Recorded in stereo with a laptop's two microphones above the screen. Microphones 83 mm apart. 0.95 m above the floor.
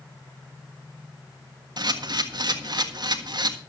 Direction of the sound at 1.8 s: 55° right (ahead or behind).